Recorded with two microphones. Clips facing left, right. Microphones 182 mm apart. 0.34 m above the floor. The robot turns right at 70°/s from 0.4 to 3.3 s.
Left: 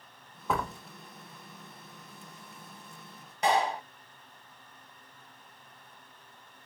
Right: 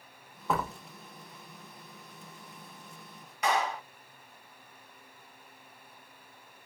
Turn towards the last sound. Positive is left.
turn(degrees=30)  # may be behind; listen again after turning